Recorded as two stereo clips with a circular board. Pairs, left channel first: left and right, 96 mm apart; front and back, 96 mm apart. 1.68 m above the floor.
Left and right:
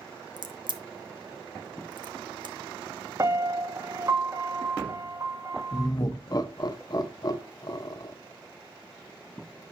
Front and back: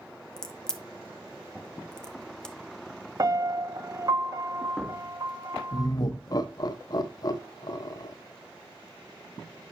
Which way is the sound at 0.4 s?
80° right.